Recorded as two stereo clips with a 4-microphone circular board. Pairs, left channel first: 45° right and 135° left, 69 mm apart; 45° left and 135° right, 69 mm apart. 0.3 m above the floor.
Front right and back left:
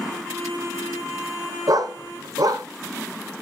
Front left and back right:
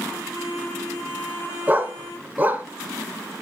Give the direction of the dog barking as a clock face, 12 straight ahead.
7 o'clock.